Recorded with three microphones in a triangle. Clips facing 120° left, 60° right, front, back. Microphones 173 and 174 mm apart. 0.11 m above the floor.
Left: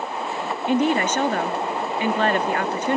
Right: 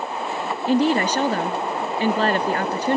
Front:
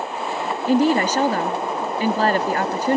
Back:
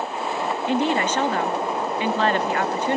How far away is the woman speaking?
About 1.7 m.